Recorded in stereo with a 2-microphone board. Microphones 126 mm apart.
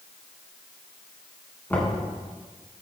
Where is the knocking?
15° left (ahead or behind), 3 m.